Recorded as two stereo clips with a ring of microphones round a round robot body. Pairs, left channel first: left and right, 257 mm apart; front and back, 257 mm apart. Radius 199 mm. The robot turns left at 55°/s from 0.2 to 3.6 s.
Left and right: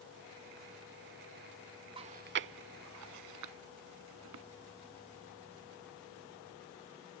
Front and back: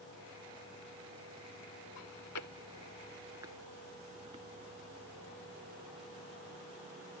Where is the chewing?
20° right; by 4.5 s 110° right.